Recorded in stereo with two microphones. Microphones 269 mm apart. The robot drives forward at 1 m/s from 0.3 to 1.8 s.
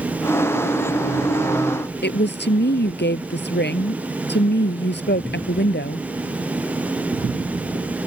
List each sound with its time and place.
2.0 s a woman speaking: 40° left (ahead or behind)